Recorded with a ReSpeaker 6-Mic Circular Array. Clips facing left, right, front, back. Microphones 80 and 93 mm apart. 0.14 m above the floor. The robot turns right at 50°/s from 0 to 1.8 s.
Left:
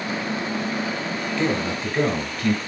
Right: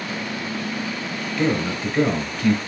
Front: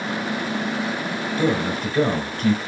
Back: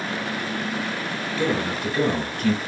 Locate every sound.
1.4 s a man speaking: 15° right, 1.3 m; by 2.6 s 10° left, 1.3 m